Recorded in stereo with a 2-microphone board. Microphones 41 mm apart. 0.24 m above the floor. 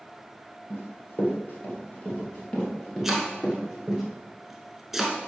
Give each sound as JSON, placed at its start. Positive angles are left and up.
{"t": 0.7, "sound": "running footsteps", "side_deg": 50, "distance_m": 3.0}
{"t": 3.0, "sound": "chopping", "side_deg": -5, "distance_m": 1.0}